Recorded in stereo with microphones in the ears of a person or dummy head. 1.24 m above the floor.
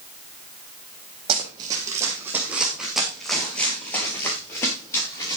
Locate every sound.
1.3 s running footsteps: 25° right (ahead or behind), 4 m; by 5.4 s 25° left (ahead or behind), 7 m